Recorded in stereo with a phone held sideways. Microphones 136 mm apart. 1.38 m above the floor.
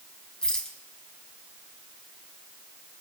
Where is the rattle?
5° left (ahead or behind), 2 m.